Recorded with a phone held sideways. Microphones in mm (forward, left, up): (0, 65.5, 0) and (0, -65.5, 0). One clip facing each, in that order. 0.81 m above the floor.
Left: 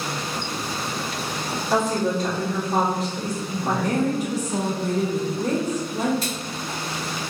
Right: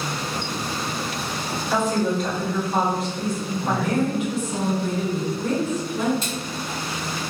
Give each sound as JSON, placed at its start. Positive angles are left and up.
{"t": 1.7, "sound": "a woman speaking", "side_deg": 35, "distance_m": 1.3}
{"t": 3.6, "sound": "a woman speaking", "side_deg": 40, "distance_m": 0.8}
{"t": 6.2, "sound": "a splash", "side_deg": -25, "distance_m": 1.3}